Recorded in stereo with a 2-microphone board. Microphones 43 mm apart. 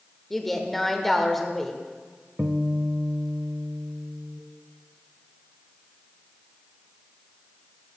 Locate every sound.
0.3 s a woman speaking: 5° left (ahead or behind), 1.0 m
2.4 s a guitar: 30° right (ahead or behind), 0.6 m